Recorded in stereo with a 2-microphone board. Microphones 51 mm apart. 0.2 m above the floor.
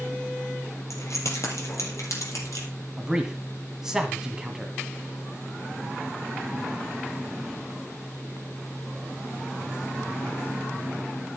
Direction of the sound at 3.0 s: 10° right (ahead or behind).